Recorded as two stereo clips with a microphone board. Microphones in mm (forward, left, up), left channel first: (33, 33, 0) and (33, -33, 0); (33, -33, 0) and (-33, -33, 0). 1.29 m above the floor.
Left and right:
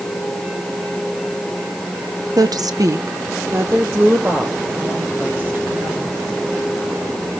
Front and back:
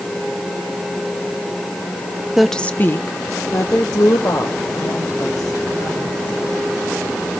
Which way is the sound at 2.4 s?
100° right.